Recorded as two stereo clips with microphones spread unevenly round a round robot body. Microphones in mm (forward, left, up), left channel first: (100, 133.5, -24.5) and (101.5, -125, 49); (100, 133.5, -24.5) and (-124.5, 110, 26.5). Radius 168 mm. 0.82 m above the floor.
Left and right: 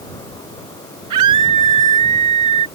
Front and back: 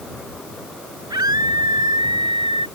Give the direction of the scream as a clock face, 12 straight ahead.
3 o'clock.